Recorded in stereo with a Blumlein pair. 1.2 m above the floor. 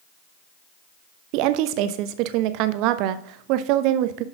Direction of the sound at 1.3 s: 40° right.